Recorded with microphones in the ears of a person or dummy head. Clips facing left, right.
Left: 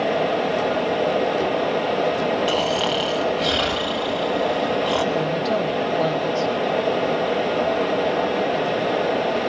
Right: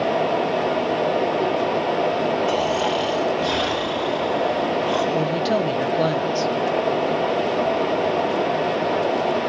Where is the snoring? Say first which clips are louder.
Right 1 dB; 50° left (ahead or behind), 1.5 m.